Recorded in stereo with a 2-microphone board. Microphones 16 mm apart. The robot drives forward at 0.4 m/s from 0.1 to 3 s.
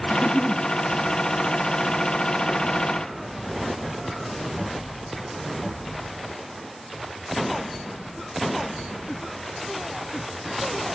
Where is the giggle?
50° right (ahead or behind), 0.9 m; by 0.6 s 60° right (ahead or behind), 0.8 m.